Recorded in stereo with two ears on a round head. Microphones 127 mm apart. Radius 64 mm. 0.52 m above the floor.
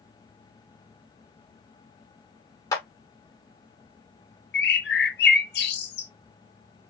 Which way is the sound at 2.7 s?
25° left (ahead or behind).